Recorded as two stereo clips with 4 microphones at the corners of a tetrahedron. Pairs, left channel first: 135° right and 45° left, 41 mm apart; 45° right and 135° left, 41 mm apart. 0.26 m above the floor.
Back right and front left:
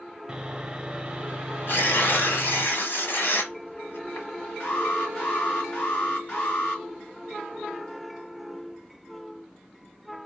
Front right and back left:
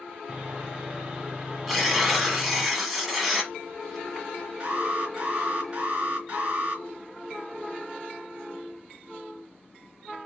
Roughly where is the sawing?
Left.